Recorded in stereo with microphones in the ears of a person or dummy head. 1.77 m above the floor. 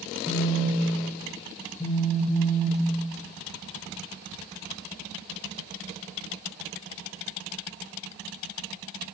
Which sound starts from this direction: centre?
A phone buzzing, at 0.3 s.